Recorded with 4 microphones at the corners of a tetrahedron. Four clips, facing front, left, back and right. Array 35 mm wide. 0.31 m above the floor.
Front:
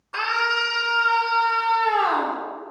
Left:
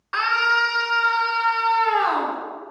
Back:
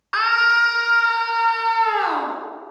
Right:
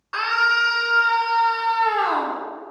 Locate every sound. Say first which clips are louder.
0.1 s a scream: even, back 6 dB; 165° left, 3.5 m; by 2.4 s 155° left, 5 m